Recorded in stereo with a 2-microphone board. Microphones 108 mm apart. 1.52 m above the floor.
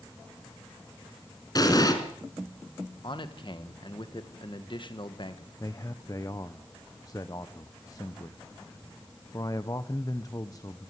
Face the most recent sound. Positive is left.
turn(degrees=35)  # may be behind; listen again after turning